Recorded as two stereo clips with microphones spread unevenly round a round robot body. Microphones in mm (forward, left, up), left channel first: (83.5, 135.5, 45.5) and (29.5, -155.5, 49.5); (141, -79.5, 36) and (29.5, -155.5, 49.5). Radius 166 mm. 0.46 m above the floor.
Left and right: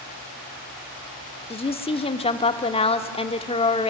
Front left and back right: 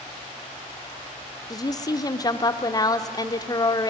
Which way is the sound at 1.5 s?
25° left.